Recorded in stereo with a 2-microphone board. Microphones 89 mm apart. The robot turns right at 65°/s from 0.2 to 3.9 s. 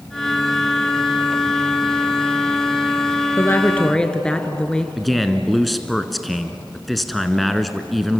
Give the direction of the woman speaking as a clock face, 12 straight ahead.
8 o'clock.